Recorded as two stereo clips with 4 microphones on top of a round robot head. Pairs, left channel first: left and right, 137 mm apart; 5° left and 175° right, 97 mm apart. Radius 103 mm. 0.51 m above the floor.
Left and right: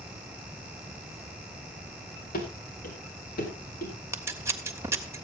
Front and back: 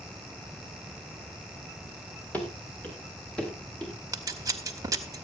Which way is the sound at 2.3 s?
80° left.